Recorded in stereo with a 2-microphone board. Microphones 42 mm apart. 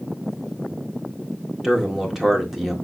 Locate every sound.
1.6 s a man speaking: 10° right (ahead or behind), 1.5 m